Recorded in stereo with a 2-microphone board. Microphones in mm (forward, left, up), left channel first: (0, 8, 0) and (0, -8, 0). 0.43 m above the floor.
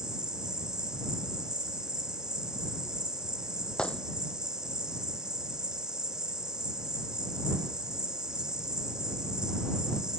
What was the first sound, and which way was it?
An insect, 45° right (ahead or behind).